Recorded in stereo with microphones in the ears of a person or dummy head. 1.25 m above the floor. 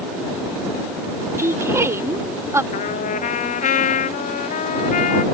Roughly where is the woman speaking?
Centre.